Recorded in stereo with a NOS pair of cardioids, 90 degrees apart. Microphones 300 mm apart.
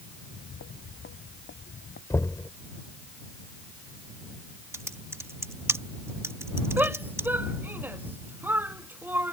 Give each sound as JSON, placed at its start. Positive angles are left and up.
{"t": 0.2, "sound": "footsteps", "azimuth_deg": 45}
{"t": 2.1, "sound": "knocking", "azimuth_deg": 10}
{"t": 4.7, "sound": "typing on a keyboard", "azimuth_deg": -10}
{"t": 6.8, "sound": "a shout", "azimuth_deg": -5}